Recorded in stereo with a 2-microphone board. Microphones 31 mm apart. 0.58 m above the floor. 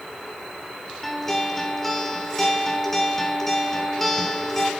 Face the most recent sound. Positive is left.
turn(degrees=10)  # may be behind; listen again after turning